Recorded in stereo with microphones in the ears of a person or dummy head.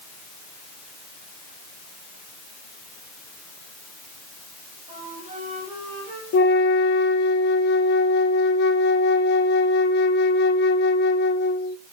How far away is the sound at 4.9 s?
About 9.5 m.